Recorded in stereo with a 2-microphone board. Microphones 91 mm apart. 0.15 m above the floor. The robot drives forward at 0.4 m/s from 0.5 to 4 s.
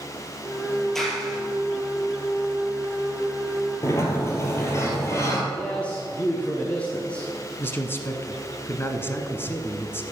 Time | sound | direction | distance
0.9 | a clap | 5° left (ahead or behind) | 3 m
3.8 | a sliding door | 35° left (ahead or behind) | 2 m
5.5 | a man speaking | 15° left (ahead or behind) | 1.5 m
7.6 | a man speaking | 25° left (ahead or behind) | 1.3 m